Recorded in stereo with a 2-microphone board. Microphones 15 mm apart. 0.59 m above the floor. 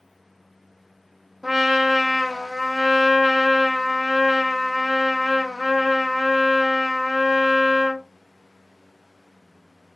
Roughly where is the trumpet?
Right.